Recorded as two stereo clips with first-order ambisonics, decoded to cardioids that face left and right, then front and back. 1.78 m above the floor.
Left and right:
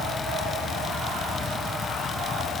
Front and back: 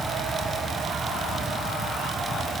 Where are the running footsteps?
I don't hear running footsteps.